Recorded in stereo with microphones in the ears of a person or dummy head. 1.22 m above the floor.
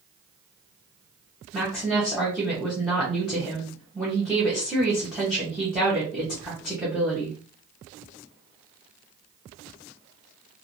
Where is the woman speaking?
Centre (ahead or behind), 1.0 m.